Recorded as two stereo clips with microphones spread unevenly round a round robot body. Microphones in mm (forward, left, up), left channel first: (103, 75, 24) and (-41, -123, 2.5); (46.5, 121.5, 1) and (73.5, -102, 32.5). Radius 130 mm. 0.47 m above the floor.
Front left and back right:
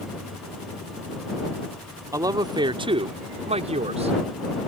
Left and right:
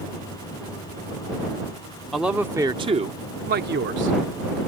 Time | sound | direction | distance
2.1 | a man speaking | 175° left | ?